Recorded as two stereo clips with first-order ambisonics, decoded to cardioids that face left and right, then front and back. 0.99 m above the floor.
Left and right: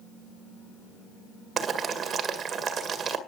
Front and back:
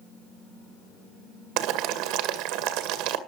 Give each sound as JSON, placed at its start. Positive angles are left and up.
{"t": 1.6, "sound": "boiling", "azimuth_deg": -155, "distance_m": 2.0}